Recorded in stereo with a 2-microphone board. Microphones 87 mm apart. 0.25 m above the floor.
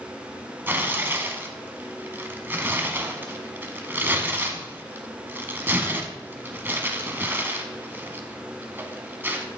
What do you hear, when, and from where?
0.7 s tearing paper: 25° right (ahead or behind), 0.8 m